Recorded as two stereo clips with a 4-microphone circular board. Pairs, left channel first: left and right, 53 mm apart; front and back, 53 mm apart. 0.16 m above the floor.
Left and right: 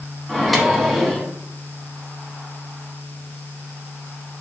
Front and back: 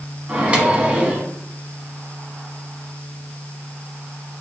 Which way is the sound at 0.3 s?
Straight behind.